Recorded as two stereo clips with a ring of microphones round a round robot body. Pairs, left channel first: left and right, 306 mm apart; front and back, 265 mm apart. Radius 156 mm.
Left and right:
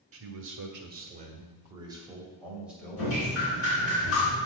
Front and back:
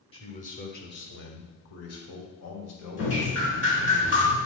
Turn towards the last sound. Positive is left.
turn(degrees=45)